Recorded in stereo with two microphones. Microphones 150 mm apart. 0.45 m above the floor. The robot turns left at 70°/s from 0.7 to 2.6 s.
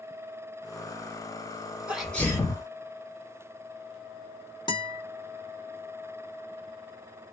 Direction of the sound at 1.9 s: 170° right.